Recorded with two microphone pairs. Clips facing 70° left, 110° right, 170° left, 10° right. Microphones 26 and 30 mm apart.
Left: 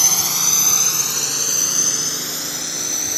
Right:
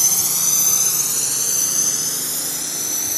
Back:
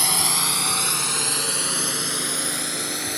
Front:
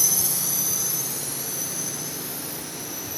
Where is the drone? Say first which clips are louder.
Left 2 dB, back 5 dB; 135° left; by 3.2 s 150° left.